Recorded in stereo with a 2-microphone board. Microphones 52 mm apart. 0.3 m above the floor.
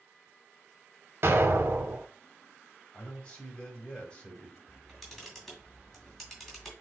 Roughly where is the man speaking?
Centre.